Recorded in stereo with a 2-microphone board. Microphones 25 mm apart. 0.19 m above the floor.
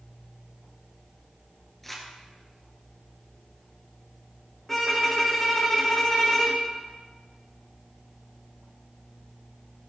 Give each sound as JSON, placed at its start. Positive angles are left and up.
{"t": 1.8, "sound": "crumpling", "side_deg": 10, "distance_m": 1.7}
{"t": 4.7, "sound": "a violin", "side_deg": 10, "distance_m": 1.8}